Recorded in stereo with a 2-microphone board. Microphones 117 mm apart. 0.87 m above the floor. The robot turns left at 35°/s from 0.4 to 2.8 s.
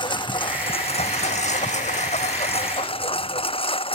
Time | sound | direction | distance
0.0 | a lawn mower | 135° left | ?